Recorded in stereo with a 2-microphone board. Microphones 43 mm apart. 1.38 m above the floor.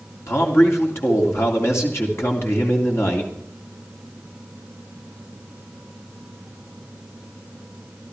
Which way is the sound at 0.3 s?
75° left (ahead or behind).